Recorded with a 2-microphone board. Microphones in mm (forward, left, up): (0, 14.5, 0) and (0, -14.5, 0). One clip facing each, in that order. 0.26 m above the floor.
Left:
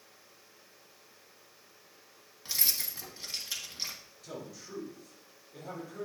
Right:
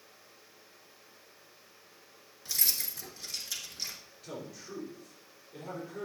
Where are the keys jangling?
30° left (ahead or behind), 1.5 m.